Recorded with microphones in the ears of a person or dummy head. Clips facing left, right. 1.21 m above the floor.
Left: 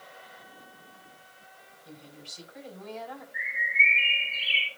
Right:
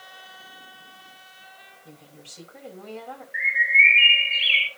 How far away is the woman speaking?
About 7.5 m.